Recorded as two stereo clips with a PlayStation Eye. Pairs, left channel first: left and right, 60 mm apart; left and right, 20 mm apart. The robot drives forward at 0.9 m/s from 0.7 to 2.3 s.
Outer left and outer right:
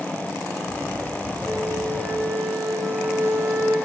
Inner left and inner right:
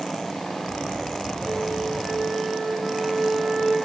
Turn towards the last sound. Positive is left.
turn(degrees=-30)  # may be behind; listen again after turning